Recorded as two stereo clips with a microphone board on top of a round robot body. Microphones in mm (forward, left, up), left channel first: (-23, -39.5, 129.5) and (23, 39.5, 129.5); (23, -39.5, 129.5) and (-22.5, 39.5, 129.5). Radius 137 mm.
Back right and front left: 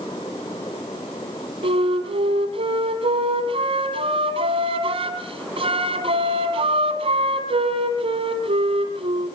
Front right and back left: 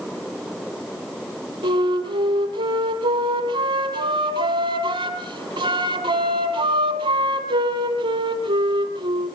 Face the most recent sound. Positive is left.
turn(degrees=90)